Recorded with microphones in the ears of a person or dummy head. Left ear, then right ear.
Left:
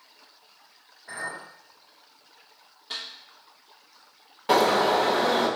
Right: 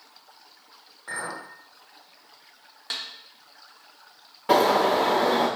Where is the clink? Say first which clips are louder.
Right 2 dB; 75° right (ahead or behind), 2.5 m.